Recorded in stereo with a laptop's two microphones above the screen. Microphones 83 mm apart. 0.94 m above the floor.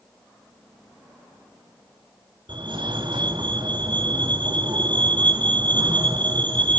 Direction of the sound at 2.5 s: 75° right (ahead or behind).